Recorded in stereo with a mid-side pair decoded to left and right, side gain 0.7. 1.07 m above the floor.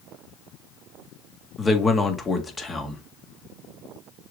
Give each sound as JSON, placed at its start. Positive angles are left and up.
{"t": 1.6, "sound": "a man speaking", "azimuth_deg": 20, "distance_m": 1.9}